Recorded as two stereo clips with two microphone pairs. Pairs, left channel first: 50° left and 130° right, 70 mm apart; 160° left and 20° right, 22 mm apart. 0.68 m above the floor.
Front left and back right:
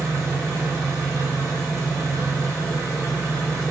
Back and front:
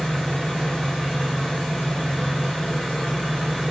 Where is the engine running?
175° left, 1.6 m.